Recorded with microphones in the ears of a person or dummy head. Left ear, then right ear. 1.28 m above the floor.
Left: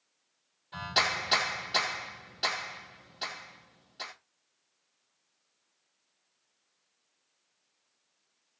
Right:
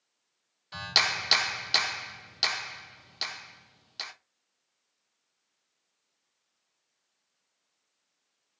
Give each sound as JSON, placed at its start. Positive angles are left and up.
{"t": 0.7, "sound": "a clap", "side_deg": -60, "distance_m": 1.1}